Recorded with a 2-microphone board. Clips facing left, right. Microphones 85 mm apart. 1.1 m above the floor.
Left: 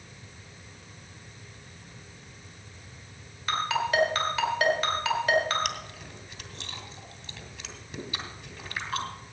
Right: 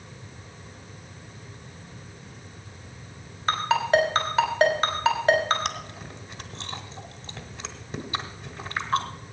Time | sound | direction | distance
3.5 | a ringtone | 30° right (ahead or behind) | 3.5 m
5.7 | chewing | 35° right (ahead or behind) | 1.6 m